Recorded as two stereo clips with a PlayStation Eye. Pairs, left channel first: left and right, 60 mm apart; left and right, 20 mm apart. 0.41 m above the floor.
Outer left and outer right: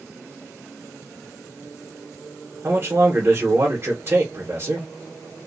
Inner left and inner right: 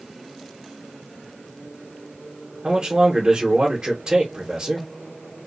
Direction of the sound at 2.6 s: 40° right (ahead or behind).